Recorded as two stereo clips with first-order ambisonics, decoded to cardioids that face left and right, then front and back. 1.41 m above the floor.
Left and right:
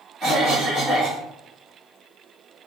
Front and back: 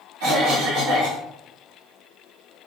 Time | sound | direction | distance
0.2 | a cough | 170° right | 1.2 m